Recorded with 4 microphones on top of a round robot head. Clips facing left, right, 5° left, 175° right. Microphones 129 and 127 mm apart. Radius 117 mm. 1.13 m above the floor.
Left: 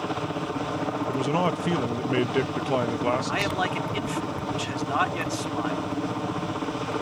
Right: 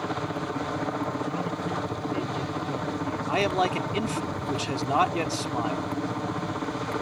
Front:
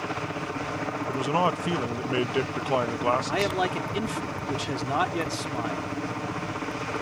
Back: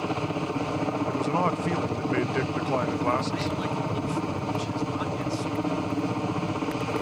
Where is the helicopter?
165° left.